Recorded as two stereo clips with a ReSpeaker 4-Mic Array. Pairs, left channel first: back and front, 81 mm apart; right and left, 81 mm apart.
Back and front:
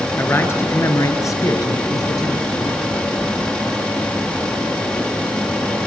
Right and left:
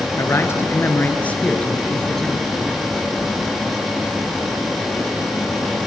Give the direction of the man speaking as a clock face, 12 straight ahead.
4 o'clock.